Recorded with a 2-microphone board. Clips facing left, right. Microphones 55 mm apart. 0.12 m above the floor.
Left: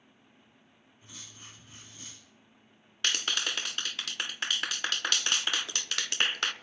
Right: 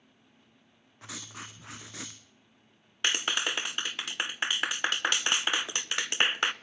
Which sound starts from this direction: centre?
A clap, at 3.0 s.